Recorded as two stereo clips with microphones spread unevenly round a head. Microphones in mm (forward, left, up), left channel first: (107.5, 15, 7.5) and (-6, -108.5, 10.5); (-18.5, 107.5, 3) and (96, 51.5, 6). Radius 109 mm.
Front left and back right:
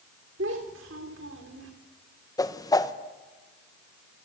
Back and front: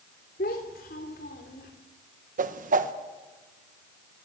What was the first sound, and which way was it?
A child speaking, 170° right.